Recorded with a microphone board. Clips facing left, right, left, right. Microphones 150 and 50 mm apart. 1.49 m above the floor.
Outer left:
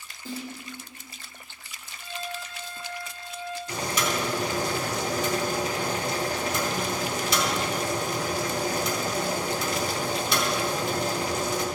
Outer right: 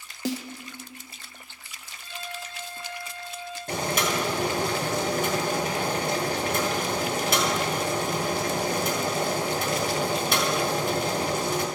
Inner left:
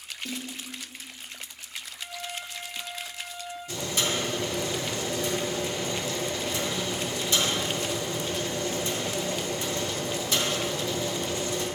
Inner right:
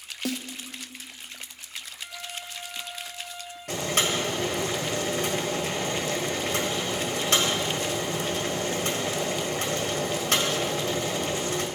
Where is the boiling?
55° right (ahead or behind), 1.7 m.